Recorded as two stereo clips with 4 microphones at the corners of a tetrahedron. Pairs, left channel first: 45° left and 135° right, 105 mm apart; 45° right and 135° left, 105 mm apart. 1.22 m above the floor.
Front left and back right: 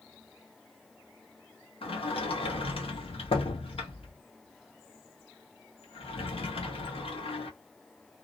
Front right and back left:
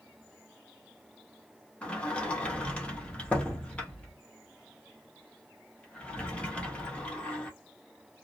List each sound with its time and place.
1.8 s a sliding door: 35° left, 0.8 m